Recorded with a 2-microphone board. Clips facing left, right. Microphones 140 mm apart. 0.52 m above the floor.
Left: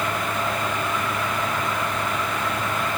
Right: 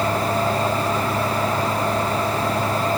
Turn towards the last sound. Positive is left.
No sound to turn to.